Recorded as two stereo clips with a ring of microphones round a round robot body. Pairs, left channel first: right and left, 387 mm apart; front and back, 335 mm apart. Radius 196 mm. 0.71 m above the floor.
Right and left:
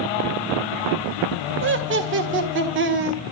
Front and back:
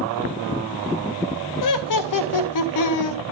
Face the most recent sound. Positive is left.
turn(degrees=30)